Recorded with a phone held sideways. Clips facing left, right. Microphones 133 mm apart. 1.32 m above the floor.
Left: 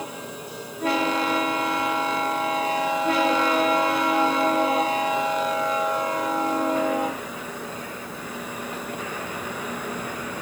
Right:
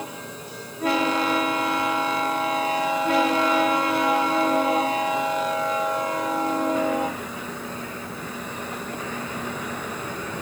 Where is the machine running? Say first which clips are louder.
Left 1 dB; 10° left (ahead or behind).